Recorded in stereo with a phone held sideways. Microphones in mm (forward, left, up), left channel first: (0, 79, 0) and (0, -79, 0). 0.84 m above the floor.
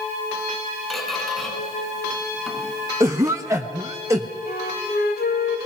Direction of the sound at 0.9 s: Centre (ahead or behind).